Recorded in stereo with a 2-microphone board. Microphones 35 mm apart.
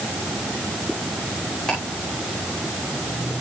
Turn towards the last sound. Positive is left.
turn(degrees=20)  # may be behind; listen again after turning